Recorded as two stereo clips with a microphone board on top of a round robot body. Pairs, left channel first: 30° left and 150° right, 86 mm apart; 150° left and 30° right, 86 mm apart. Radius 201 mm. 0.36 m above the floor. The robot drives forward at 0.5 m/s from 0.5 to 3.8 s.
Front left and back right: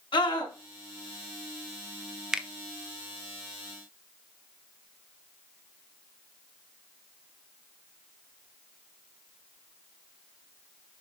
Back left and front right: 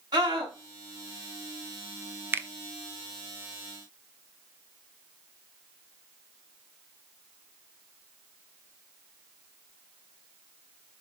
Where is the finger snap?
70° right, 0.9 m; by 2.5 s 80° right, 0.9 m.